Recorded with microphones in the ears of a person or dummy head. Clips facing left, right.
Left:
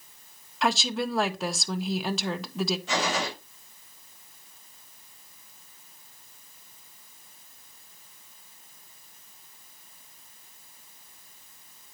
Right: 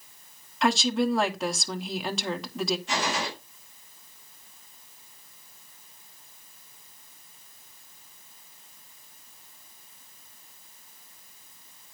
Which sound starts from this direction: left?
A gunshot, at 2.9 s.